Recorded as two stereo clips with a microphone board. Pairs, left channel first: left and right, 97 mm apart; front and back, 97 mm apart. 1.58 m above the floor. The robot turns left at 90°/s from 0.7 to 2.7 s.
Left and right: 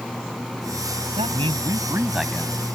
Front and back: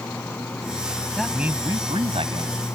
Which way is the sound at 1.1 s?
80° right.